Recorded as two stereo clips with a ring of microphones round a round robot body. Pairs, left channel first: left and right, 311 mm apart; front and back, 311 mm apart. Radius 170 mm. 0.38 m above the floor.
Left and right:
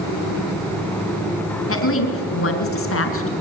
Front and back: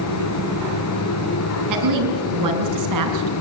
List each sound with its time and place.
1.7 s a woman speaking: 140° left, 5 m